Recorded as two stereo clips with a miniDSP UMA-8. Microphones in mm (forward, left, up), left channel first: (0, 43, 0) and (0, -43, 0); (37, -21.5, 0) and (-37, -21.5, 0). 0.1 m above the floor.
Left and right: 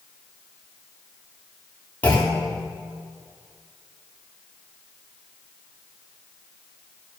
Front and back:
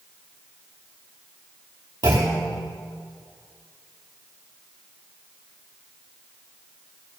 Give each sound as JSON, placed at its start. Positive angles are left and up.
{"t": 2.0, "sound": "a clunk", "azimuth_deg": 160, "distance_m": 3.0}